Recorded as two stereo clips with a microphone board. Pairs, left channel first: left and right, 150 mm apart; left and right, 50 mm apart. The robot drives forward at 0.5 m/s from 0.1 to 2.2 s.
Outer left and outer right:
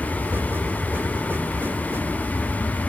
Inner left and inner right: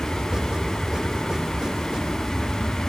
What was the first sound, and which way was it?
An aircraft, centre (ahead or behind).